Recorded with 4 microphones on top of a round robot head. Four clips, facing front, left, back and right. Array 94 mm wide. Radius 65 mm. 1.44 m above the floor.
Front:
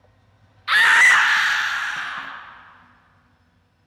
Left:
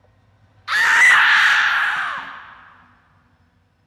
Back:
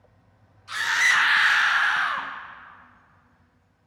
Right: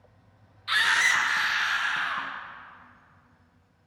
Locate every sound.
0.7 s a scream: 30° left, 0.9 m; by 2.3 s 130° left, 1.1 m